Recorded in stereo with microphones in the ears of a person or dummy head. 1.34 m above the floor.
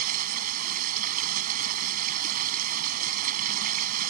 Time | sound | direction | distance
0.0 | running water | 50° right (ahead or behind) | ?